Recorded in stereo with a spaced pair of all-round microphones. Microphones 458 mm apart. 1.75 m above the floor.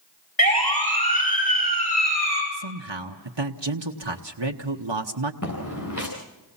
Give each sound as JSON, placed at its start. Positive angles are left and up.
{"t": 0.4, "sound": "a siren", "side_deg": 50, "distance_m": 8.5}
{"t": 2.5, "sound": "a man speaking", "side_deg": -70, "distance_m": 1.2}
{"t": 5.4, "sound": "footsteps", "side_deg": 40, "distance_m": 7.0}